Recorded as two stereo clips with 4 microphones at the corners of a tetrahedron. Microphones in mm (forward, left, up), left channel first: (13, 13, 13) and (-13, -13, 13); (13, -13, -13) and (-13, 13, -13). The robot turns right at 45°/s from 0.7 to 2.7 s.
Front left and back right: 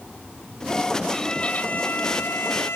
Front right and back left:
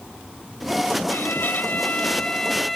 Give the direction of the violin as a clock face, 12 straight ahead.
1 o'clock.